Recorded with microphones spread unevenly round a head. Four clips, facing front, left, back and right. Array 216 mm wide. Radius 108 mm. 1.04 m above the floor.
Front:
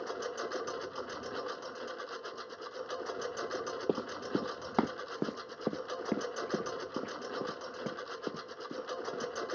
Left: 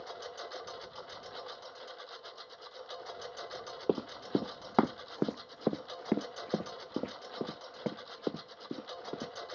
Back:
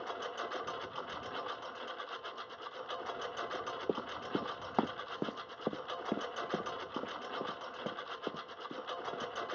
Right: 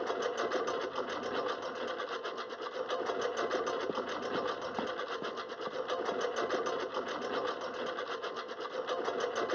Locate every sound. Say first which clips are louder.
0.0 s a lawn mower: right 11 dB, front 3 dB; 80° right
3.9 s running footsteps: left 3 dB, front 3 dB; 50° left; by 9.3 s 70° left